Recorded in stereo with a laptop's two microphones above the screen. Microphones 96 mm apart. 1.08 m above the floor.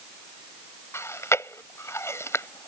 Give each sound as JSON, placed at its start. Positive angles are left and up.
{"t": 0.9, "sound": "chewing", "side_deg": 30}